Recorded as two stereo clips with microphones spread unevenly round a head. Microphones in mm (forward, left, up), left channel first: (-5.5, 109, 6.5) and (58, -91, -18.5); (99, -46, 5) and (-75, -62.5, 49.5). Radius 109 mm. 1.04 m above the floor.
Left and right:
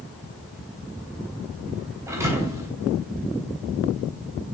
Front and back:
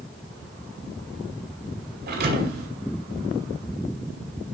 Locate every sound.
2.1 s a thud: 155° right, 2.5 m